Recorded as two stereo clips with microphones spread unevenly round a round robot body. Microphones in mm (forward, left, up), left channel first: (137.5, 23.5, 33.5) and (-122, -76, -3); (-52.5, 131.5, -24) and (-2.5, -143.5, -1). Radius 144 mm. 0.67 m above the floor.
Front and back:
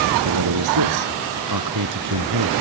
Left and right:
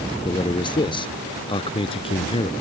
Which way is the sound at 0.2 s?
175° left.